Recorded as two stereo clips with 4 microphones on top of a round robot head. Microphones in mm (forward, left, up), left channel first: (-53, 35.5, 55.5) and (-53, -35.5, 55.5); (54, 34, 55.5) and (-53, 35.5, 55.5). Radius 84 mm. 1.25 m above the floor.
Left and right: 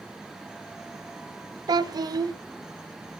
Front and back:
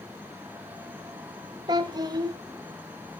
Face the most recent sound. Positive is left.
turn(degrees=-120)